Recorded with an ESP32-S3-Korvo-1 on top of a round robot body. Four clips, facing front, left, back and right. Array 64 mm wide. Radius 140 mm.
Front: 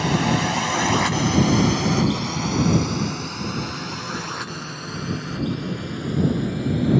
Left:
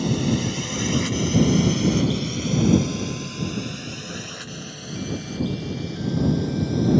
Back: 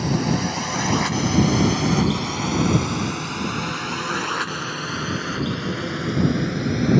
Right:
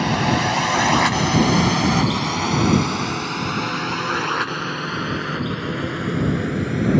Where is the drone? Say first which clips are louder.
Right 4 dB, front 2 dB; 70° right; by 7.0 s 125° right.